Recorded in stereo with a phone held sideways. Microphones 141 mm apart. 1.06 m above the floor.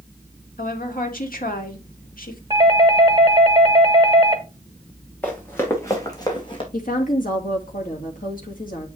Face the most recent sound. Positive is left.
turn(degrees=75)  # may be behind; listen again after turning